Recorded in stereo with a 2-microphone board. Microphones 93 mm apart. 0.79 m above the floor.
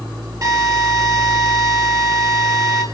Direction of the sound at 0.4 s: 45° right (ahead or behind).